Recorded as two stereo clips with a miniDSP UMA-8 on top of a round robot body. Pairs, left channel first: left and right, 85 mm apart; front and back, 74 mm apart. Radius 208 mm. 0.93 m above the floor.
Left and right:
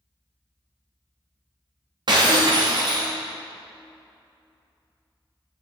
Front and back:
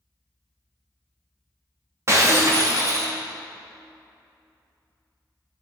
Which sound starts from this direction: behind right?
Breaking glass, at 2.1 s.